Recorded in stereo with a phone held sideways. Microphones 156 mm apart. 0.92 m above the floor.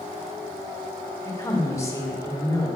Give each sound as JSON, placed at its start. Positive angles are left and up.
{"t": 1.2, "sound": "a woman speaking", "side_deg": 20, "distance_m": 2.5}